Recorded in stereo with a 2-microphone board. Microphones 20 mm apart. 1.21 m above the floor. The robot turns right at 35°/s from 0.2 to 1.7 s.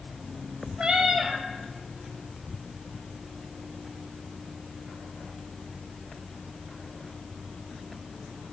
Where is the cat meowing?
55° right (ahead or behind), 2 m; by 1.4 s 35° right (ahead or behind), 2 m.